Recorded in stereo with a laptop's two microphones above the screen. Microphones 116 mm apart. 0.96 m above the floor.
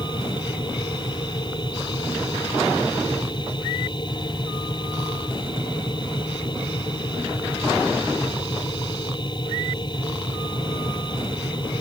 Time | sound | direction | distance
0.0 | a machine running | 40° left (ahead or behind) | ?